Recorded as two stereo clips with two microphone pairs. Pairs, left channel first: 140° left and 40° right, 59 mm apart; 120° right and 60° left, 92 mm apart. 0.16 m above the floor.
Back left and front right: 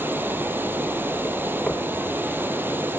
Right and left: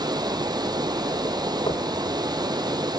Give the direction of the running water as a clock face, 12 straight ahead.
12 o'clock.